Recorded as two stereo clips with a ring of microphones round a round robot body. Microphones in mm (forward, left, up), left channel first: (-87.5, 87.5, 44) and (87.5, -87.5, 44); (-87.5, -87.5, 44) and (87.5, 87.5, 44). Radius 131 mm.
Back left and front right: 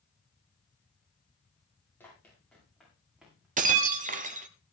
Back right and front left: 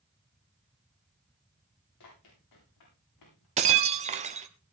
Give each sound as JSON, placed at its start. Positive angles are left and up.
{"t": 2.0, "sound": "running footsteps", "azimuth_deg": -140, "distance_m": 9.5}
{"t": 3.6, "sound": "breaking glass", "azimuth_deg": -5, "distance_m": 1.0}